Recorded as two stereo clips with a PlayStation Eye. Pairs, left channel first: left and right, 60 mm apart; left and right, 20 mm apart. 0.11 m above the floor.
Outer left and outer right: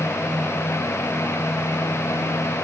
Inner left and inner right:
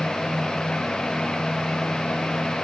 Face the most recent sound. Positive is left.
No sound to turn to.